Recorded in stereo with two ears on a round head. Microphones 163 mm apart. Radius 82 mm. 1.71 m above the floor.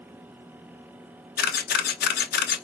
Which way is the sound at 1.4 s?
55° left (ahead or behind).